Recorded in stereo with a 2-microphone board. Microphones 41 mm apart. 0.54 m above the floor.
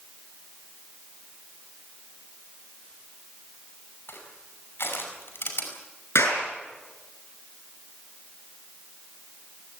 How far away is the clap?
About 6.5 m.